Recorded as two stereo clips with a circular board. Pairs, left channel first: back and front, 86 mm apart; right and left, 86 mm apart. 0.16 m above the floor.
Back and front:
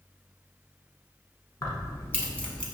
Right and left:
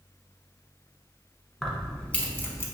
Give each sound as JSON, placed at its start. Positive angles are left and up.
{"t": 1.6, "sound": "keys jangling", "azimuth_deg": -175, "distance_m": 0.9}